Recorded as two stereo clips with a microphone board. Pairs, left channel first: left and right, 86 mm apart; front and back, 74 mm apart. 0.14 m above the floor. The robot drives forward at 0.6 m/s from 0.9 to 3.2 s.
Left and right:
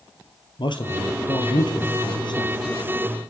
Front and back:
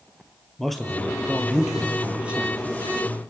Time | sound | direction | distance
0.6 | a man speaking | 85° left | 2.5 m